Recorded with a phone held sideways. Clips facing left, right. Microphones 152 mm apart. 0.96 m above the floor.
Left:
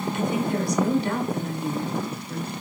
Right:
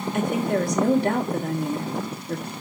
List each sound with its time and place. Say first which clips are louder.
0.1 s a woman speaking: right 3 dB; 50° right (ahead or behind), 3 m